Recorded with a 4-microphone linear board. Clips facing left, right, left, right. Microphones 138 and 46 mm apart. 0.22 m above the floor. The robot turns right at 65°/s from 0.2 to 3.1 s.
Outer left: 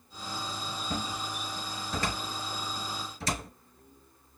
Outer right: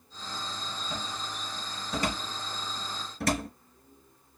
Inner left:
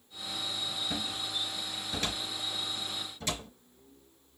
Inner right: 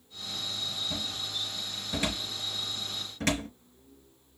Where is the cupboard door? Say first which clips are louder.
Outer left 4 dB, even; 45° left (ahead or behind), 3 m; by 3.5 s 60° right (ahead or behind), 3 m.